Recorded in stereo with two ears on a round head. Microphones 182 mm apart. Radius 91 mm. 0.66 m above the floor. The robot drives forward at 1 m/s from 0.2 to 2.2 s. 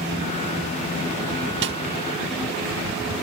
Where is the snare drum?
60° right (ahead or behind), 1.2 m; by 1.8 s 55° right (ahead or behind), 1.2 m.